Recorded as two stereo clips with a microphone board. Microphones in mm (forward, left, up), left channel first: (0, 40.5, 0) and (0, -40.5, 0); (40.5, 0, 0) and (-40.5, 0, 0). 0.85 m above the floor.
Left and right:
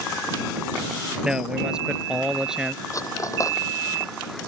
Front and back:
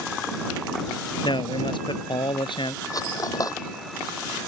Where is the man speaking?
10° right.